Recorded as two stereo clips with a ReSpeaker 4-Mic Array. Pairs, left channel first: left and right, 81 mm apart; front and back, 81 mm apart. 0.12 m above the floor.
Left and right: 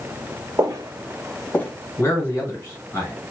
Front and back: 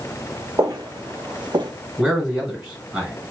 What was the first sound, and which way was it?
Footsteps, 135° right.